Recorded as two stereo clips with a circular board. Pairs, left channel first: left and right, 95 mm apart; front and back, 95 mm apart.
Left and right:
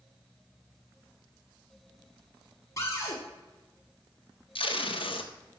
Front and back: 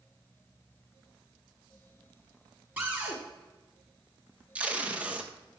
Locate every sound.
2.8 s a cupboard door: 120° left, 1.9 m
4.5 s tape being pulled: 105° left, 0.8 m